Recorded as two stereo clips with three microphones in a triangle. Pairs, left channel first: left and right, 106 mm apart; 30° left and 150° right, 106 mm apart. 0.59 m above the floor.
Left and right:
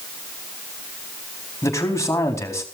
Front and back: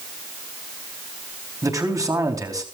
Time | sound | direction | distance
1.6 | a man speaking | 150° left | 4 m